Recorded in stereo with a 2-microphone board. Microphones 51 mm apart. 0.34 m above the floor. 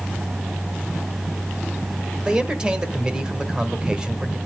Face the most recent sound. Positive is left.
turn(degrees=-20)  # may be behind; listen again after turning